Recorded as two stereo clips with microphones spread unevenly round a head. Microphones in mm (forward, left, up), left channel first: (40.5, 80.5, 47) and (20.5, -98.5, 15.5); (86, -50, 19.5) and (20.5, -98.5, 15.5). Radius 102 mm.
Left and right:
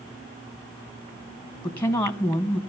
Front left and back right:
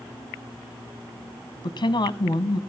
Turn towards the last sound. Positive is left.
turn(degrees=0)